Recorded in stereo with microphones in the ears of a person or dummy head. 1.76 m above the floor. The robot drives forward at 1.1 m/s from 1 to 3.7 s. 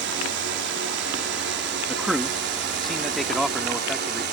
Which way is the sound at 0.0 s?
65° right (ahead or behind).